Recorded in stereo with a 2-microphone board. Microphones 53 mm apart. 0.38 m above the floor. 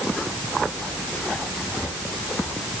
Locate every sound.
Only background noise.